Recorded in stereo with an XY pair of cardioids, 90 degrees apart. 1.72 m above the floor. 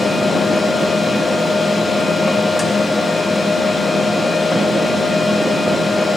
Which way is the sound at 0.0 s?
25° left.